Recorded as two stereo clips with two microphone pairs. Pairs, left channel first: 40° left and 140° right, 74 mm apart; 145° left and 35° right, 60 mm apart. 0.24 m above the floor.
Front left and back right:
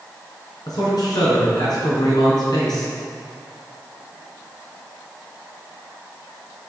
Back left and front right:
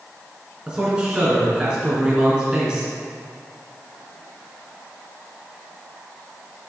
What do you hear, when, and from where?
0.7 s a man speaking: 35° left, 3 m